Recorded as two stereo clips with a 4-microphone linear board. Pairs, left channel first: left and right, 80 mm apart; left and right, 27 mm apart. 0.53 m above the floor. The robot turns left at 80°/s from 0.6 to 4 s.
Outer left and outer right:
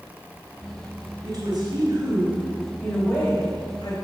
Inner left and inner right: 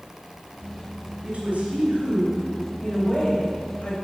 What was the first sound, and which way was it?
A woman speaking, 40° right.